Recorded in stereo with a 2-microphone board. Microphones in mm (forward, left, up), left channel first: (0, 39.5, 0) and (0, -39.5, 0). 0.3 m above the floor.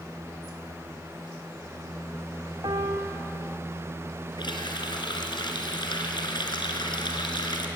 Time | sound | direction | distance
2.6 | a piano | 60° right (ahead or behind) | 3.5 m
4.4 | a running tap | 70° left (ahead or behind) | 3 m